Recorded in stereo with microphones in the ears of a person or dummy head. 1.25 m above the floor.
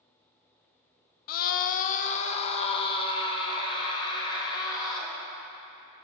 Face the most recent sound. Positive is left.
turn(degrees=25)  # may be behind; listen again after turning